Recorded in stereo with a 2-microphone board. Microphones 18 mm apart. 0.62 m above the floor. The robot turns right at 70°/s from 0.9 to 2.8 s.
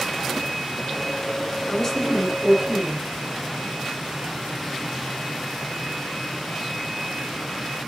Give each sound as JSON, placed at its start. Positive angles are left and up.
{"t": 1.7, "sound": "a woman speaking", "azimuth_deg": 150, "distance_m": 8.5}